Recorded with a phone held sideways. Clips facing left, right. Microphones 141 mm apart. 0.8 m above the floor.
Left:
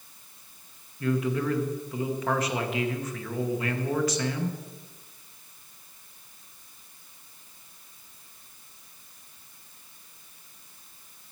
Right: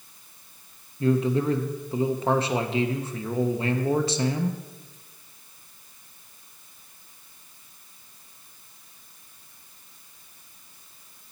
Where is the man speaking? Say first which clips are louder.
Right 4 dB; 30° right (ahead or behind), 0.7 m.